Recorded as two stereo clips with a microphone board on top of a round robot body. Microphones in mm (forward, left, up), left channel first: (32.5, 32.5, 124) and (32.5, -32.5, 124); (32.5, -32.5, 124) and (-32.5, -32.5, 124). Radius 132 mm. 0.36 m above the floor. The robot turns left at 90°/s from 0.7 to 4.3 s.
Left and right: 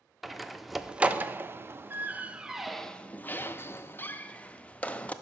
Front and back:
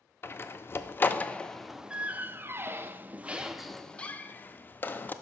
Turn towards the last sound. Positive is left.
turn(degrees=35)